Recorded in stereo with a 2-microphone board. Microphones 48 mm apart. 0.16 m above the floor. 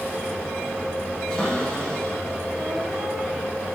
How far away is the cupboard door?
About 6.5 m.